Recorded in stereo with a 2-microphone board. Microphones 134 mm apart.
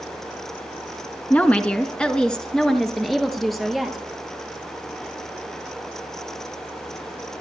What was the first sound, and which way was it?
A woman speaking, 15° left (ahead or behind).